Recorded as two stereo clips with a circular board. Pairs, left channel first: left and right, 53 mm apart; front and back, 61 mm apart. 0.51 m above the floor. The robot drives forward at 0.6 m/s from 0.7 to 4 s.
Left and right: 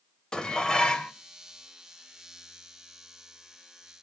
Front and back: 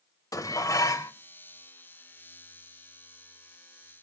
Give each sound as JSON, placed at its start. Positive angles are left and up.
{"t": 0.3, "sound": "dishes clattering", "azimuth_deg": 15, "distance_m": 1.2}